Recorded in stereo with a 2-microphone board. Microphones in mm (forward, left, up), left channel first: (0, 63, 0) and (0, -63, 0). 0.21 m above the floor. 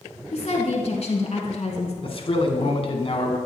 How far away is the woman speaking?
About 2 m.